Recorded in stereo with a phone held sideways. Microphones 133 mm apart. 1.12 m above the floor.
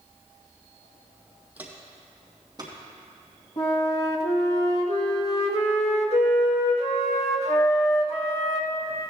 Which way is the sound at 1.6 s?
10° right (ahead or behind).